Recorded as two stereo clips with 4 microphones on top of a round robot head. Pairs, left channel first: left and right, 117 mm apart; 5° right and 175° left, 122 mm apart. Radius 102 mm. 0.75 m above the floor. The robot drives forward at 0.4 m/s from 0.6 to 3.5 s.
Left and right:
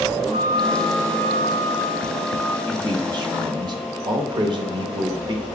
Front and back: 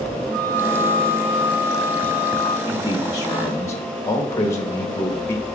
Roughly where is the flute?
Right.